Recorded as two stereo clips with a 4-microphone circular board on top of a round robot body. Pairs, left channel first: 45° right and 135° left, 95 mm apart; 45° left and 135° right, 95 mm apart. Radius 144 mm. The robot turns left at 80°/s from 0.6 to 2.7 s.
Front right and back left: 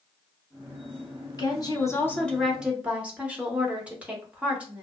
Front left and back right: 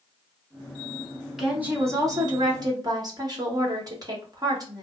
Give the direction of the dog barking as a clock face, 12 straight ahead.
No dog barking in this recording.